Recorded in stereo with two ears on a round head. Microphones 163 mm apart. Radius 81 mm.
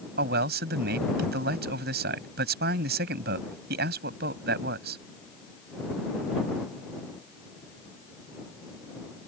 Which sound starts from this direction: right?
A man speaking, at 0.2 s.